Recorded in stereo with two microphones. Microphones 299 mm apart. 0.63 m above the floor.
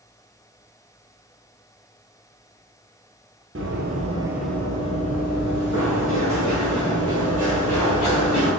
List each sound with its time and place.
3.5 s running footsteps: 45° right (ahead or behind), 0.8 m; by 8.5 s 55° left (ahead or behind), 3 m